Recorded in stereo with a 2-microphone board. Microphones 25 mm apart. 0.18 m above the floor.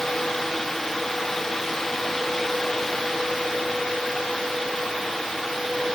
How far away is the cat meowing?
I don't hear a cat meowing.